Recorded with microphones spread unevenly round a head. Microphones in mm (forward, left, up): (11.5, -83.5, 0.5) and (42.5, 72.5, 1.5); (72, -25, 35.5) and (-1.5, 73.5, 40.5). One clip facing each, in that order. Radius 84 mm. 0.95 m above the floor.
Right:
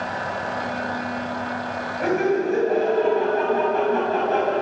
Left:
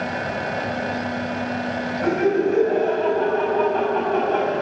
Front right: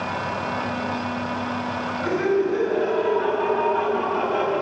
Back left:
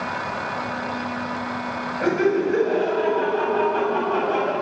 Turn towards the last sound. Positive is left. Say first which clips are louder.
# left 1 dB, back left 2 dB
turn(degrees=175)